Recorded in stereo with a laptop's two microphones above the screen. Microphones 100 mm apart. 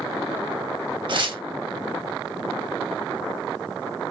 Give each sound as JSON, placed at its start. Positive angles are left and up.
{"t": 1.1, "sound": "tearing paper", "side_deg": -55, "distance_m": 3.0}